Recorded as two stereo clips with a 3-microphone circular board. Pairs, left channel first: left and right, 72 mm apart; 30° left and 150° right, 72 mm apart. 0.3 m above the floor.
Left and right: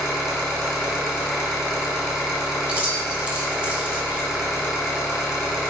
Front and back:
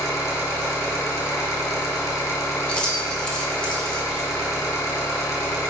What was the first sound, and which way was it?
An engine running, 5° right.